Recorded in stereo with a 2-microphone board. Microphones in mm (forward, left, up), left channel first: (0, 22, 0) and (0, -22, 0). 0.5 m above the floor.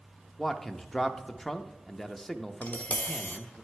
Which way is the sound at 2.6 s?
35° left (ahead or behind).